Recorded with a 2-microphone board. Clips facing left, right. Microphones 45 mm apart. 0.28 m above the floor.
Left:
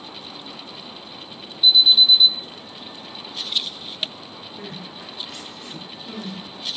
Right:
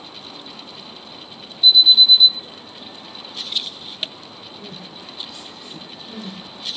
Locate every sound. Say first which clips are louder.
1.6 s an alarm: right 2 dB; 5° left (ahead or behind), 5.5 m
4.6 s crying: left 2 dB; 55° left (ahead or behind), 1.9 m